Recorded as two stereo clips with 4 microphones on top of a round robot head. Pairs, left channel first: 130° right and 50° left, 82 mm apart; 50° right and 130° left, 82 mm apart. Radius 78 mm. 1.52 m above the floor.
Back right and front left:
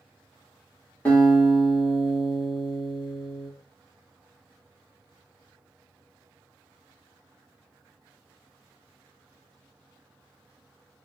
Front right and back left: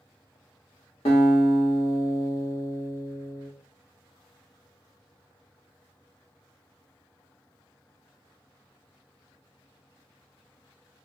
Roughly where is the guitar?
Ahead right.